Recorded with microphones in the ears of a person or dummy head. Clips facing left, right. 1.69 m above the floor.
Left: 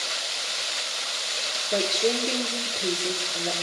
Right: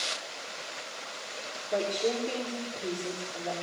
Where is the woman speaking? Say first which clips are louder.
Left 4 dB; 25° left (ahead or behind), 5 m.